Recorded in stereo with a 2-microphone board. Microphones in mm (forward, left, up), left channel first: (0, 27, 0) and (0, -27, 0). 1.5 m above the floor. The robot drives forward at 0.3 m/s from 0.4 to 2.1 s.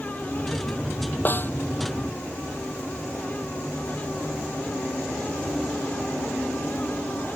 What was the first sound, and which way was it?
A snare drum, 35° left (ahead or behind).